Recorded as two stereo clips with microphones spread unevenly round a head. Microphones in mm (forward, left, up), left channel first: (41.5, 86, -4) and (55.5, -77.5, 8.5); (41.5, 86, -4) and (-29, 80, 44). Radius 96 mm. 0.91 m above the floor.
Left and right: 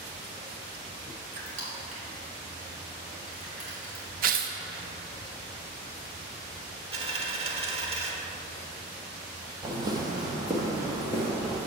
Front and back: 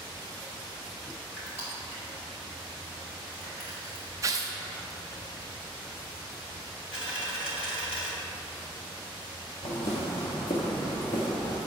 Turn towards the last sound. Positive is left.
turn(degrees=-15)